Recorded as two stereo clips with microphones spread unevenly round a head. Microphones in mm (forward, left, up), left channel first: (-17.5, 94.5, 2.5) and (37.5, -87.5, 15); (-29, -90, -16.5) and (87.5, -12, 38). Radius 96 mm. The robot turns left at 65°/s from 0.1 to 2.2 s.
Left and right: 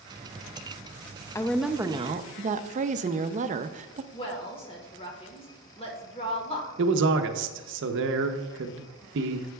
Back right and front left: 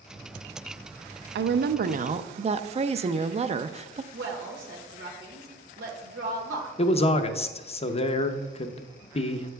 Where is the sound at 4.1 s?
50° left, 1.3 m.